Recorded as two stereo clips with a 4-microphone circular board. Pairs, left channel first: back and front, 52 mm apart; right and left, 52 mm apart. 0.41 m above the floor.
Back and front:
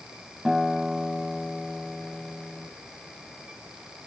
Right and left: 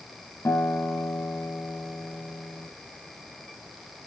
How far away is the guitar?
About 1.6 m.